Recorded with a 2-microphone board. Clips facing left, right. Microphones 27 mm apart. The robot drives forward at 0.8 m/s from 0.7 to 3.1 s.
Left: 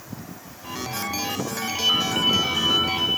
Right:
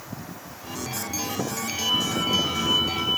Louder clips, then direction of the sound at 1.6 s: Left 4 dB; 70° left (ahead or behind).